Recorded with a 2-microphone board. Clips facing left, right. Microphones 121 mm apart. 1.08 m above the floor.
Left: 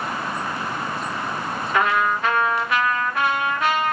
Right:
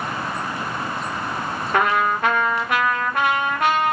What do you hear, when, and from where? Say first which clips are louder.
1.7 s a trumpet: right 1 dB; 55° right (ahead or behind), 0.9 m